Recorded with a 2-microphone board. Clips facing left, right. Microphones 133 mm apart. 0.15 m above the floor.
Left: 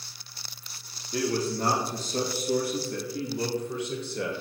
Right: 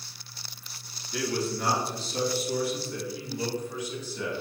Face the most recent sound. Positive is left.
turn(degrees=65)  # may be behind; listen again after turning